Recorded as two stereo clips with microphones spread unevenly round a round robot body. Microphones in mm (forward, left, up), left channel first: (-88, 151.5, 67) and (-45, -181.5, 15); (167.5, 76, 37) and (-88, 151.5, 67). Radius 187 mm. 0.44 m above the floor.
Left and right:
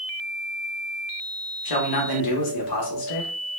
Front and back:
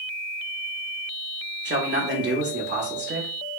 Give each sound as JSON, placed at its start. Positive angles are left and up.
{"t": 1.6, "sound": "a man speaking", "azimuth_deg": 110, "distance_m": 1.1}